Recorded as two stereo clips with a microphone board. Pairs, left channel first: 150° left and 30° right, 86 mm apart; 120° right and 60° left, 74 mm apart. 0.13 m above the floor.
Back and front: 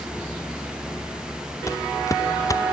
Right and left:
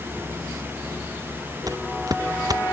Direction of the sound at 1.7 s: 95° left.